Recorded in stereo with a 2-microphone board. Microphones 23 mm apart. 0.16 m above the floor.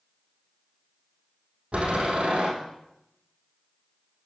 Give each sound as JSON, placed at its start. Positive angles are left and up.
{"t": 1.7, "sound": "a door slam", "side_deg": -55, "distance_m": 4.5}